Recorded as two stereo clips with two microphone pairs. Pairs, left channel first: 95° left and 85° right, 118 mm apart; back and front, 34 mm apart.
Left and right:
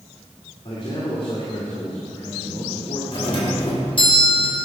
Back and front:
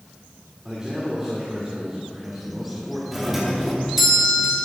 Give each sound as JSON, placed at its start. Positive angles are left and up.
{"t": 0.7, "sound": "a man speaking", "azimuth_deg": 70, "distance_m": 2.0}
{"t": 3.1, "sound": "a doorbell", "azimuth_deg": 75, "distance_m": 1.9}